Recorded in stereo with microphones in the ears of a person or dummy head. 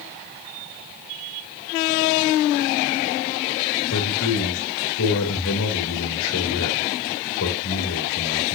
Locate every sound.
3.9 s a man speaking: 80° left, 4 m